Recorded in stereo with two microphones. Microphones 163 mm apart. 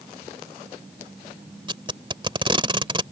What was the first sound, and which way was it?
Tape being pulled, 30° right (ahead or behind).